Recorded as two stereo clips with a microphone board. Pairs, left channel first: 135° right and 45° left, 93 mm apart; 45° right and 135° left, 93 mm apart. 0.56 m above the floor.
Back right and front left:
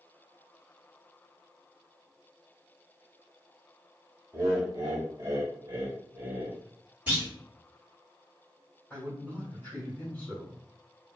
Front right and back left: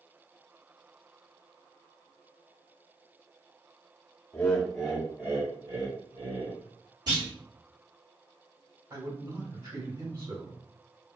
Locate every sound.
4.3 s laughter: 10° left, 0.9 m; by 6.6 s 120° left, 1.8 m
7.1 s a clunk: 115° left, 1.9 m
8.9 s a man speaking: 155° left, 1.7 m